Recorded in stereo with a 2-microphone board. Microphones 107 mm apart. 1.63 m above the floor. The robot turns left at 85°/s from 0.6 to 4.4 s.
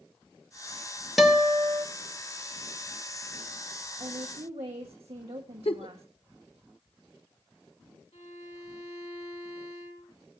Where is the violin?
85° left, 3.5 m.